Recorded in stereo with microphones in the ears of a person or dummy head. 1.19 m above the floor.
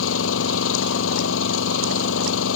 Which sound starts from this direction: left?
An engine running, at 0.0 s.